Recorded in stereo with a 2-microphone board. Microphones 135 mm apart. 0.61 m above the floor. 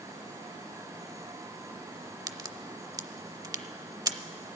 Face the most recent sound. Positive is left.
turn(degrees=-30)  # may be behind; listen again after turning